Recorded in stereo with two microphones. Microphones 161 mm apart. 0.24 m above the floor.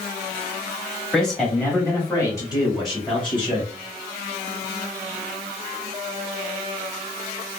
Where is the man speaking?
Centre (ahead or behind), 1.4 m; by 3.7 s 35° left (ahead or behind), 1.8 m.